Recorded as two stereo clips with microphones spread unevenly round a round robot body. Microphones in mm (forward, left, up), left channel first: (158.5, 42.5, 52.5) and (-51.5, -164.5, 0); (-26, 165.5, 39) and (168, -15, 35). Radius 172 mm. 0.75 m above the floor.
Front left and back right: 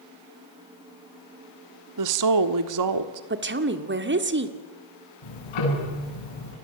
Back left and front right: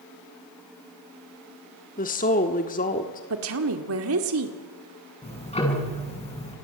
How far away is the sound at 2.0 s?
About 1.4 m.